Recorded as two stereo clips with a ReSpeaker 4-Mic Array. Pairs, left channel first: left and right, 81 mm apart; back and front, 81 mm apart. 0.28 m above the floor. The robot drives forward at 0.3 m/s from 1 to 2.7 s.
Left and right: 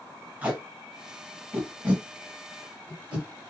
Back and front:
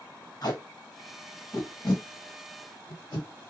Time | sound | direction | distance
0.4 | tape being pulled | 155° right | 1.8 m